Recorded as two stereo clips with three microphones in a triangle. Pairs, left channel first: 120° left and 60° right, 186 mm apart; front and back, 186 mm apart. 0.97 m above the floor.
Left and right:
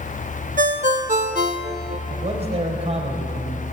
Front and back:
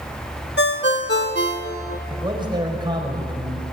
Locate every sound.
0.6 s a ringtone: 15° right, 1.3 m
2.1 s a man speaking: 115° right, 4.5 m